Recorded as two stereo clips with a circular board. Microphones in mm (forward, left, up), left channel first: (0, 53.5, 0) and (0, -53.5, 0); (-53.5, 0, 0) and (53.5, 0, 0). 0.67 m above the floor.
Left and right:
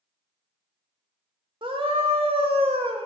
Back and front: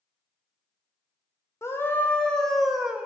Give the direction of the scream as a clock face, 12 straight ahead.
4 o'clock.